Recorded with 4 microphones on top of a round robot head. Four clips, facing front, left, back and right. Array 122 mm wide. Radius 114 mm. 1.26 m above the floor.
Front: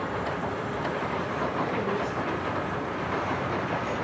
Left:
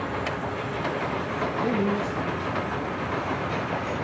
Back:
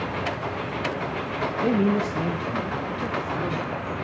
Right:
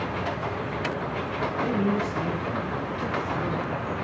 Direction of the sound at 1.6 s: 155° left.